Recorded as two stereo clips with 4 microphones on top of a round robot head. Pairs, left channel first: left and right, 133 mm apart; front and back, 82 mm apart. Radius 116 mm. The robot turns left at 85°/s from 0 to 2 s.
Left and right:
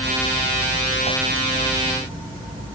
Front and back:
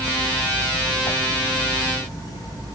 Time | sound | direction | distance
1.1 | a whoosh | 45° right | ?